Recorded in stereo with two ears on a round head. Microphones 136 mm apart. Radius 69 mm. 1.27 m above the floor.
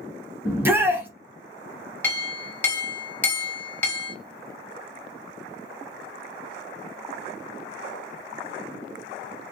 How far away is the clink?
About 0.7 m.